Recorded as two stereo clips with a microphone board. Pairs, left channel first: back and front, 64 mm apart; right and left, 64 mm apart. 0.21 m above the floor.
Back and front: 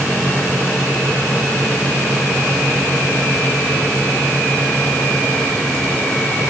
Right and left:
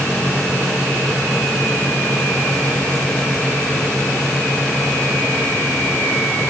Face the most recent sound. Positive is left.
No sound to turn to.